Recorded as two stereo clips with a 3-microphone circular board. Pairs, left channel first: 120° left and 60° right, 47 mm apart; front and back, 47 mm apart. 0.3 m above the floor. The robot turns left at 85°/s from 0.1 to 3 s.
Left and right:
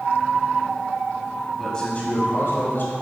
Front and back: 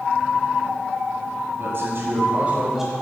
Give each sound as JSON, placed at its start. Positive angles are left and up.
{"t": 1.6, "sound": "a man speaking", "azimuth_deg": -155, "distance_m": 1.8}